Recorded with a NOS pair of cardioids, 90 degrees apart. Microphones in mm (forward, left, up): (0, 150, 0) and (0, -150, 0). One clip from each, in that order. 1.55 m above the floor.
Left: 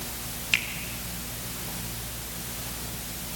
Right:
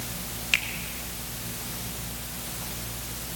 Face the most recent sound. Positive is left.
turn(degrees=0)